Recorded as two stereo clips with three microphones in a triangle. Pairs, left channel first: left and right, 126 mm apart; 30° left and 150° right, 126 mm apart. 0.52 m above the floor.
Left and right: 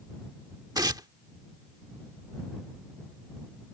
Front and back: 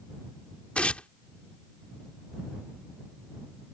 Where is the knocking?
I don't hear knocking.